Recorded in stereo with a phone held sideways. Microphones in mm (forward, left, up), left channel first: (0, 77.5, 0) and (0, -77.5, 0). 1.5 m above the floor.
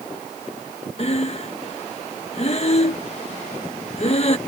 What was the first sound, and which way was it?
Breathing, 40° left (ahead or behind).